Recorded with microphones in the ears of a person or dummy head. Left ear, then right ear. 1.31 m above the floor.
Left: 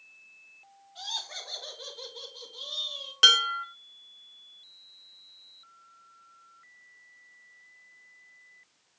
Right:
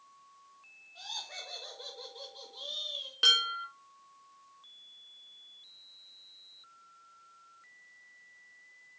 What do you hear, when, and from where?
0.9 s laughter: 20° left (ahead or behind), 2.5 m; by 3.1 s 10° right (ahead or behind), 2 m
3.2 s dishes clattering: 30° left (ahead or behind), 1.1 m